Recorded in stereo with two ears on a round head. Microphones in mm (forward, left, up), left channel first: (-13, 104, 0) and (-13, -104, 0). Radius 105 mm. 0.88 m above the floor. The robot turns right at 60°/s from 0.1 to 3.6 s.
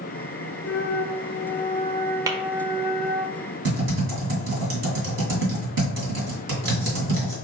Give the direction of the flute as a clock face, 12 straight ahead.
9 o'clock.